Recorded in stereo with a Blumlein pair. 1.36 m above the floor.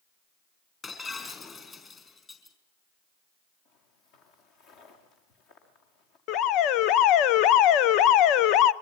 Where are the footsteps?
45° left, 6 m.